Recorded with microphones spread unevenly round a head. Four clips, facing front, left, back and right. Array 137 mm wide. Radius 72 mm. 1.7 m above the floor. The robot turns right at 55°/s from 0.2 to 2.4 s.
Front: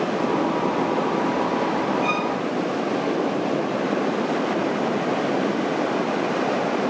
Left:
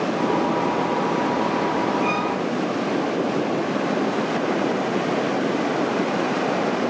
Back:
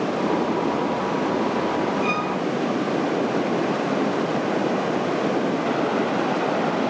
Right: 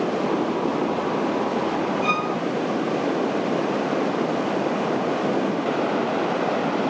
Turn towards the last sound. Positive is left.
turn(degrees=-60)